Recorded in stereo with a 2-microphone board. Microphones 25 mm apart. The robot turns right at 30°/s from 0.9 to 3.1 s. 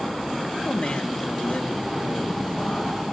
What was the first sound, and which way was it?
A man speaking, 65° left.